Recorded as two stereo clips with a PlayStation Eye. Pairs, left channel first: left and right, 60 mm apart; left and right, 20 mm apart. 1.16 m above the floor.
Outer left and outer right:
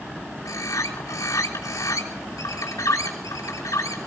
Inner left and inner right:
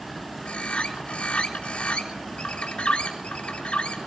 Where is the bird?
80° left, 3 m.